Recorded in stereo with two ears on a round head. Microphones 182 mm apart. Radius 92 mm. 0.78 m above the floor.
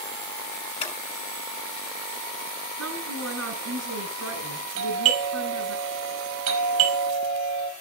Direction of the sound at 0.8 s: 30° left (ahead or behind).